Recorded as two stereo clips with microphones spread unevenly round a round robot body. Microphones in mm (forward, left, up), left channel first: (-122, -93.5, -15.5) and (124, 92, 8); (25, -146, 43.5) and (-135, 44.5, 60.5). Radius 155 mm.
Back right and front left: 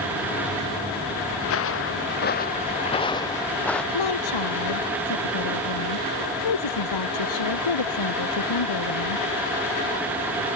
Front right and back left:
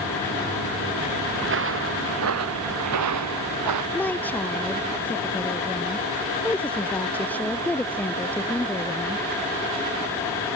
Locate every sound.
1.4 s footsteps: 170° left; by 3.8 s 130° left
3.9 s a woman speaking: 135° right